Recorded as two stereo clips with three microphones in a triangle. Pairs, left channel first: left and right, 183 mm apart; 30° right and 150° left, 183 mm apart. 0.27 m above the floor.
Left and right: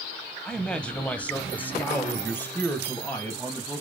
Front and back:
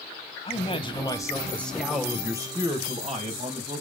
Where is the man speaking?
5° left, 2 m; by 3.8 s 165° left, 2.5 m.